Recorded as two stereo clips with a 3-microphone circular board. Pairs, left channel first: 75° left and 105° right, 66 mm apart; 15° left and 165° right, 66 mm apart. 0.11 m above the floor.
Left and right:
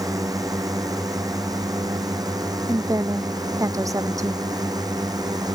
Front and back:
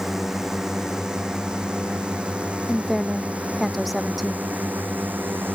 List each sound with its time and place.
0.0 s a drone: 80° right; by 5.5 s 105° right
2.7 s a woman speaking: 75° right